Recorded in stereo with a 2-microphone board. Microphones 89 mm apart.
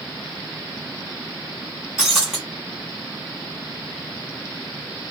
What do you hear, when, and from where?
2.0 s breaking glass: 5° right (ahead or behind), 1.8 m